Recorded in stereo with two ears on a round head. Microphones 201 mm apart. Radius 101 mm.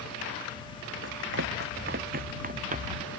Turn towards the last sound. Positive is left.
turn(degrees=-30)  # may be behind; listen again after turning